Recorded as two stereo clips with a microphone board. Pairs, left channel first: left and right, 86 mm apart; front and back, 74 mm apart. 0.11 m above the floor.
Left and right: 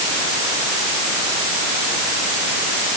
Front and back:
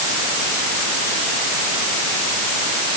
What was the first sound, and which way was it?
Only background noise.